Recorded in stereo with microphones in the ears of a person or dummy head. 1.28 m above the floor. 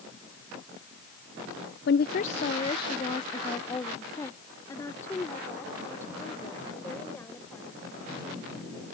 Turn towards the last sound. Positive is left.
turn(degrees=10)  # may be behind; listen again after turning